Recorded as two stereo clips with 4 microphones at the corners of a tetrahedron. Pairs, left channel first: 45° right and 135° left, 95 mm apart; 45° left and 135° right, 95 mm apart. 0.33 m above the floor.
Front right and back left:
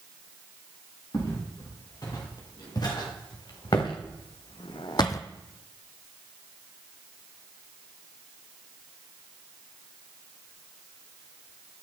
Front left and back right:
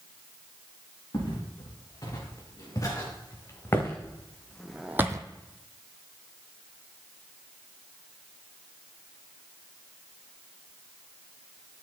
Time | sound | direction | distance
1.1 | footsteps | straight ahead | 4.5 m